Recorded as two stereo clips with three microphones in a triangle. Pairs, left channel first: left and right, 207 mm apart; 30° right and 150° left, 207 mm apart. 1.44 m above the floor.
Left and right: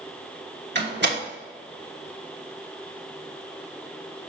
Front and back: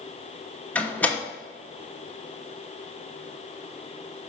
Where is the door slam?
110° right, 1.3 m.